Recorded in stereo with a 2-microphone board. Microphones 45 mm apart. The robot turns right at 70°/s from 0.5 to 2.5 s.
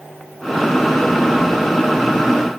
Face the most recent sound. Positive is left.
No sound to turn to.